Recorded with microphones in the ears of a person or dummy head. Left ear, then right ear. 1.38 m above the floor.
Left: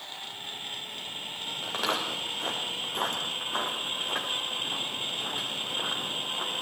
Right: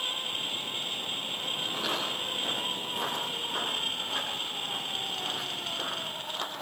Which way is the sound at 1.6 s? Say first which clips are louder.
Left 4 dB; 50° left (ahead or behind).